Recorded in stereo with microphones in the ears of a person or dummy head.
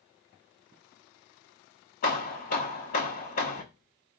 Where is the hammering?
45° left (ahead or behind), 0.7 m.